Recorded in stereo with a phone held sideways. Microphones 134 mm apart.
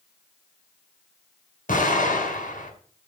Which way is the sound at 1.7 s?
80° left.